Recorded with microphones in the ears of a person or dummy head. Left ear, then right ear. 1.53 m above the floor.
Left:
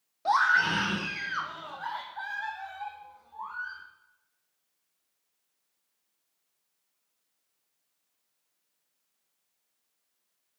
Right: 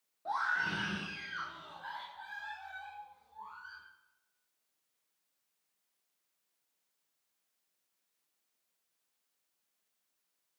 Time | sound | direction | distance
0.2 | a scream | 75° left (ahead or behind) | 1.6 m